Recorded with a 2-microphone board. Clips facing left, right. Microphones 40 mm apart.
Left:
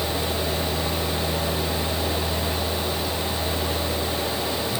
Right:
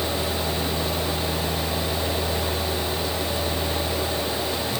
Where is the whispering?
I don't hear whispering.